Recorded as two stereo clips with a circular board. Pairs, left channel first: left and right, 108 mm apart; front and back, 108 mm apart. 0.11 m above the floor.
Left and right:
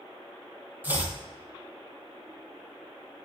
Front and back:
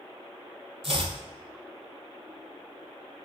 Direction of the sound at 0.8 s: 165° right.